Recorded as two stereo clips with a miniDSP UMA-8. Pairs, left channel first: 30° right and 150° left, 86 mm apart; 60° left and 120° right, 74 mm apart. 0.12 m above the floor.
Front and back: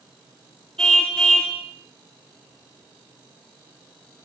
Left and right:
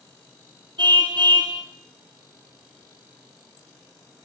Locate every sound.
0.8 s a car horn: 110° right, 3.5 m